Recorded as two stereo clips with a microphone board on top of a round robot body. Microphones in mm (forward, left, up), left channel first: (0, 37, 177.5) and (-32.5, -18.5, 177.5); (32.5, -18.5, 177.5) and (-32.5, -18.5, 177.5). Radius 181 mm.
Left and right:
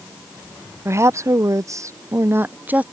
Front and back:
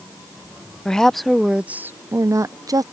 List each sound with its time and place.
0.8 s a woman speaking: 80° right; by 2.8 s 175° left